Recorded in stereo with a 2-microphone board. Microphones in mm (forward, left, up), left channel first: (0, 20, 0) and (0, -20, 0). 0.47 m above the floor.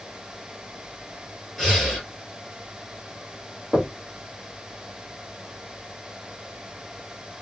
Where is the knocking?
20° right (ahead or behind), 1.9 m.